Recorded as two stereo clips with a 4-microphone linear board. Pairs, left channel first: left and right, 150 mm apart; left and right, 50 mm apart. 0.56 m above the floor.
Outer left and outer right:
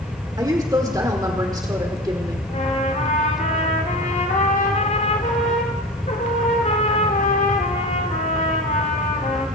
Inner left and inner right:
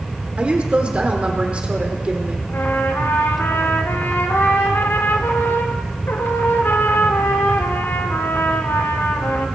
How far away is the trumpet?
About 1.6 m.